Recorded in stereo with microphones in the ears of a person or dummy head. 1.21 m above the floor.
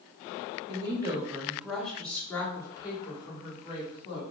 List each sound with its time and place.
0.7 s a woman speaking: 25° right (ahead or behind), 1.0 m; by 4.2 s 35° left (ahead or behind), 2 m